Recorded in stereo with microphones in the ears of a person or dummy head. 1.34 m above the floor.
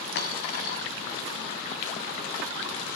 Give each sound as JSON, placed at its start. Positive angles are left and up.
{"t": 0.1, "sound": "a dropped coin", "side_deg": 45, "distance_m": 1.6}